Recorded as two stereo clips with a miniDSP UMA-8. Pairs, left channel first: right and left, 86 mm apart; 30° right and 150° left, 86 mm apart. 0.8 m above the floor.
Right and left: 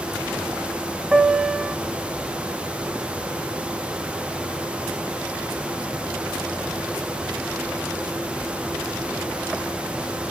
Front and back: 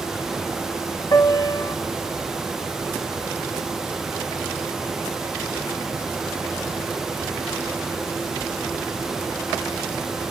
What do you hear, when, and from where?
1.1 s a piano: 10° left, 1.2 m